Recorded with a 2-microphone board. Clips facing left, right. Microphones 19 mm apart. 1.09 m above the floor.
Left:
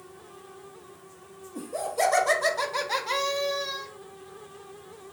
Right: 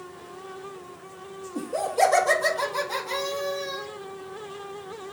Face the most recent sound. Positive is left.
turn(degrees=35)  # may be behind; listen again after turning